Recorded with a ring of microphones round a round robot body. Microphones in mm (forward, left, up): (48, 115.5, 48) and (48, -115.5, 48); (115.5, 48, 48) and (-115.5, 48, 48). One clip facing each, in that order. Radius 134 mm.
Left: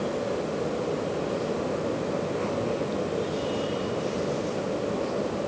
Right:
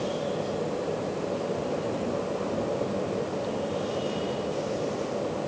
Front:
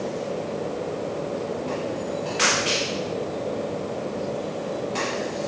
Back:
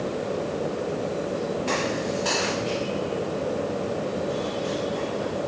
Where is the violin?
No violin in this recording.